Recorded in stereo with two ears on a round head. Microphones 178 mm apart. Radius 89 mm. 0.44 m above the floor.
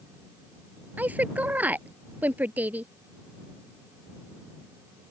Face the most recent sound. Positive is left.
turn(degrees=-10)  # may be behind; listen again after turning